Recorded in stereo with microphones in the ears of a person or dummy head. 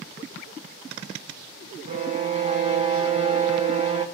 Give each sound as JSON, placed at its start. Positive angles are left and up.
{"t": 1.9, "sound": "a violin", "side_deg": -30, "distance_m": 1.7}